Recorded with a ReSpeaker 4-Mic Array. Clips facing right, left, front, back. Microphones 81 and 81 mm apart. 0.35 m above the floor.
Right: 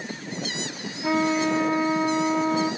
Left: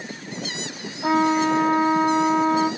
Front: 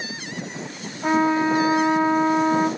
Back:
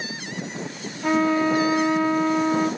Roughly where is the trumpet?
Ahead left.